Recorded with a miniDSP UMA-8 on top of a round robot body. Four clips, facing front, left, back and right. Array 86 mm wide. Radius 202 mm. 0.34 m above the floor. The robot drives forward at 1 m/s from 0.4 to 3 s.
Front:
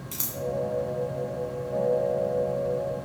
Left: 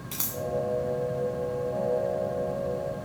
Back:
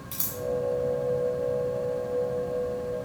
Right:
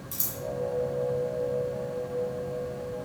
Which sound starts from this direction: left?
Scissors, at 0.1 s.